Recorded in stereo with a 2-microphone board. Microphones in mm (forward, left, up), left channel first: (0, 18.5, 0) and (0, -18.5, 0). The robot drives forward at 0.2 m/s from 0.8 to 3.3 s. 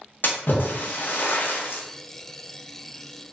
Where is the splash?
65° left (ahead or behind), 0.5 m; by 1.8 s 70° left (ahead or behind), 0.5 m.